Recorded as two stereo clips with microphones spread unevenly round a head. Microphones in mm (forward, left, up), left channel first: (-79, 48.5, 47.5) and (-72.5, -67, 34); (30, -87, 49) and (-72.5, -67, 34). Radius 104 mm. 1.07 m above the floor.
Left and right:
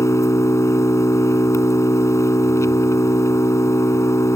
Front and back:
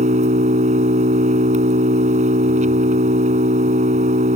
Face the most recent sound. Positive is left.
turn(degrees=155)